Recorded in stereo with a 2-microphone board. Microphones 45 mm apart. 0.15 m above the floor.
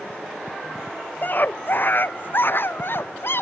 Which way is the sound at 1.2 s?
45° left (ahead or behind).